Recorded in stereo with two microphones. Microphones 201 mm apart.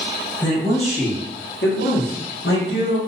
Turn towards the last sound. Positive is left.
turn(degrees=65)  # may be behind; listen again after turning